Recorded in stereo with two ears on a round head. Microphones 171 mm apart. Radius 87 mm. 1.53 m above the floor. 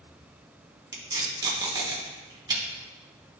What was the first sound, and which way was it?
Tape being pulled, 20° right (ahead or behind).